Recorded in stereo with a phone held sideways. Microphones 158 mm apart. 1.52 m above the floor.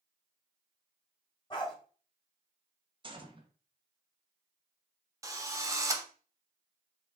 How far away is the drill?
About 0.6 m.